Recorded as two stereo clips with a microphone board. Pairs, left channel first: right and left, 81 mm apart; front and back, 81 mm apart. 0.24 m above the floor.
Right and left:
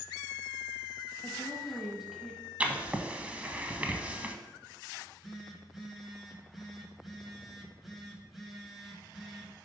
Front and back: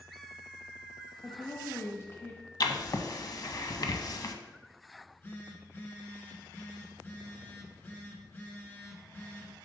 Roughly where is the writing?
Ahead.